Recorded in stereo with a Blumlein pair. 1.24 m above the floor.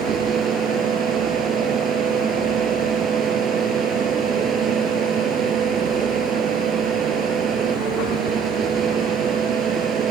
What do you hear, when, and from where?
0.0 s a fan: 25° right